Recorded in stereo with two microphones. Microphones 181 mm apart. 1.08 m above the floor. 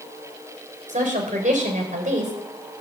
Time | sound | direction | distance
0.9 | a woman speaking | 45° right (ahead or behind) | 4 m